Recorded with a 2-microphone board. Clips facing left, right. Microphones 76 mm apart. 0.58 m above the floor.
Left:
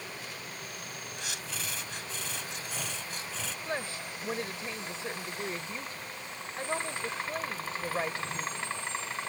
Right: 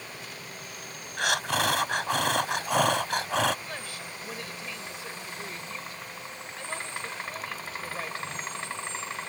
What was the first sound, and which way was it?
Breathing, 75° right (ahead or behind).